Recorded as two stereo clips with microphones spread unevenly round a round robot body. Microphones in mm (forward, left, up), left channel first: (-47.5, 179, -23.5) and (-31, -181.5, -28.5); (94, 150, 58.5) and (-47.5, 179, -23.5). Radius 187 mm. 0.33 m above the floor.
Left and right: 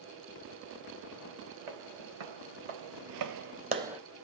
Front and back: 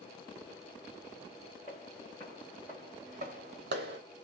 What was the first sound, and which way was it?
Footsteps, 70° right.